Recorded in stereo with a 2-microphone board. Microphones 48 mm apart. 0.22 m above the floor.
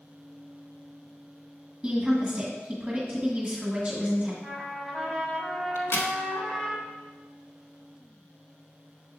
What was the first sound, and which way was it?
A woman speaking, 15° right (ahead or behind).